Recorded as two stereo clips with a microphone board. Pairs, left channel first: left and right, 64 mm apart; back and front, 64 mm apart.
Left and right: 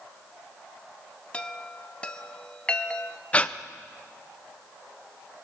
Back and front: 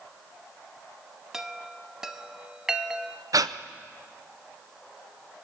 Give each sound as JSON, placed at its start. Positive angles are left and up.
{"t": 1.3, "sound": "a chime", "azimuth_deg": 65, "distance_m": 0.8}
{"t": 3.3, "sound": "breathing", "azimuth_deg": 20, "distance_m": 0.5}